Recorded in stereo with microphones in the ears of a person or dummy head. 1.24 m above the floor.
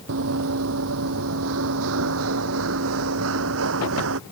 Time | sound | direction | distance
0.1 | running footsteps | 65° right (ahead or behind) | ?